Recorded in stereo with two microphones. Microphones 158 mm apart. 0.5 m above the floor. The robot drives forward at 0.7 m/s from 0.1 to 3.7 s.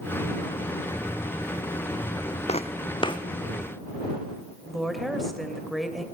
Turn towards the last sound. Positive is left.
turn(degrees=0)  # may be behind; listen again after turning